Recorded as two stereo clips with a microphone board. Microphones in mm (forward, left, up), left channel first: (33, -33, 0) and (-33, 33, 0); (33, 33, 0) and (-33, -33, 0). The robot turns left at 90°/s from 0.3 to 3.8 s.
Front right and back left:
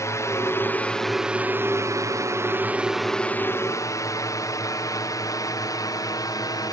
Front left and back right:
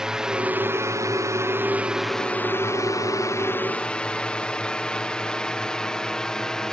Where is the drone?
60° right; by 6.7 s 35° right.